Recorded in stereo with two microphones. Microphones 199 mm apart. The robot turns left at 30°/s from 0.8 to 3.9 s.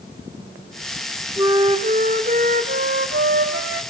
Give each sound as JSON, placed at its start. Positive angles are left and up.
{"t": 1.4, "sound": "a flute", "azimuth_deg": -20, "distance_m": 2.0}